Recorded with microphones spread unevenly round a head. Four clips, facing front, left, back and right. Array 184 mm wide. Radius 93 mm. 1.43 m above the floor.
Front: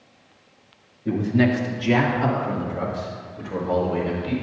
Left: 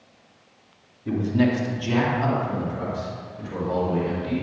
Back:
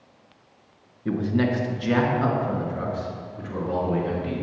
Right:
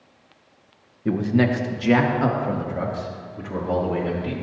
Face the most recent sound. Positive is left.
turn(degrees=-90)